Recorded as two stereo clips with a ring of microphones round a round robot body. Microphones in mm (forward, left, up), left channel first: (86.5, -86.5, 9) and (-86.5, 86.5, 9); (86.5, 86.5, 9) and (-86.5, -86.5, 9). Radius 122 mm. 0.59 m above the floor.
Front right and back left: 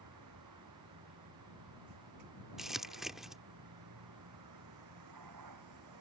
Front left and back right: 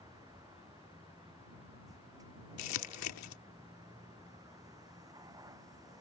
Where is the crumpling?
45° left.